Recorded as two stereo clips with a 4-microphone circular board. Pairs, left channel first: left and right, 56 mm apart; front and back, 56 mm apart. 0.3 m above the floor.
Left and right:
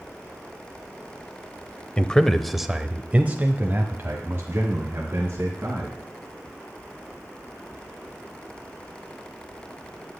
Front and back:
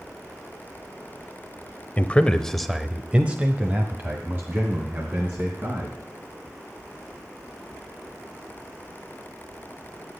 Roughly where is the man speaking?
Ahead left.